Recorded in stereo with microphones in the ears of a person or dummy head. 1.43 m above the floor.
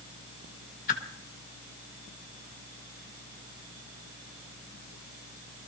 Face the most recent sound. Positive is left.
turn(degrees=50)  # may be behind; listen again after turning